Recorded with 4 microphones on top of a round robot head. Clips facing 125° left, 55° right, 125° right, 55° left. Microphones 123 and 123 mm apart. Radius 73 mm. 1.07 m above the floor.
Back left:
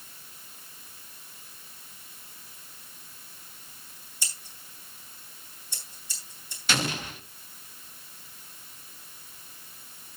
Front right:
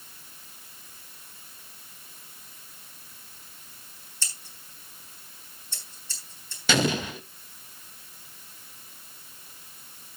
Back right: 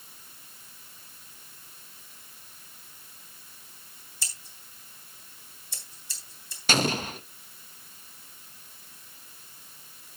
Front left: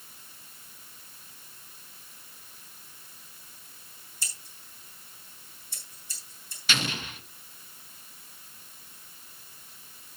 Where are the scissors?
155° right, 3 m.